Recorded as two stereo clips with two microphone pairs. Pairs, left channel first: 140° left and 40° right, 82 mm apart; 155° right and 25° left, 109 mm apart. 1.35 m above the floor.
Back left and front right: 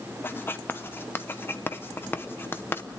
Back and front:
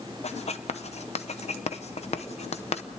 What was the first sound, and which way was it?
Writing, 155° right.